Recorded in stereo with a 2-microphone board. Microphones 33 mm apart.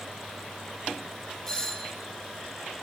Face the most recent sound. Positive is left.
turn(degrees=20)  # may be behind; listen again after turning